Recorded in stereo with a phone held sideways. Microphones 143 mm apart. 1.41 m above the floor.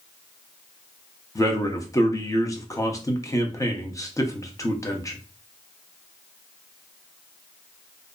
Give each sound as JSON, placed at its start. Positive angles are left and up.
{"t": 1.4, "sound": "a man speaking", "side_deg": 25, "distance_m": 0.6}